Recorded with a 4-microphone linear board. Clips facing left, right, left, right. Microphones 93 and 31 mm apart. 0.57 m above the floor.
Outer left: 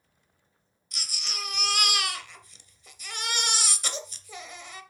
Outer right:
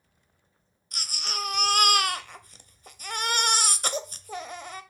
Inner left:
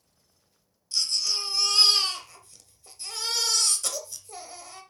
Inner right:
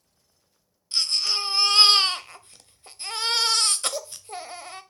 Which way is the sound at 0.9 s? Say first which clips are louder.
Outer right 5 dB, inner right 3 dB; 50° right (ahead or behind).